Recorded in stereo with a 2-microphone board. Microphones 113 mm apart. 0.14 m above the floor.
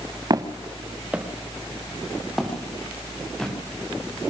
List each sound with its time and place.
0.3 s footsteps: 35° right (ahead or behind), 1.5 m; by 3.5 s 5° left (ahead or behind), 6 m